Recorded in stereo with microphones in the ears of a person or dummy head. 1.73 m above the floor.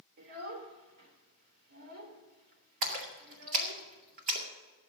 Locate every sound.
0.2 s a child speaking: 50° right (ahead or behind), 3 m
2.8 s a splash: 40° right (ahead or behind), 2 m